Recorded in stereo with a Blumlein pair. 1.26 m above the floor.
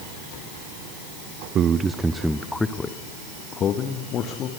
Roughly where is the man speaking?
Ahead right.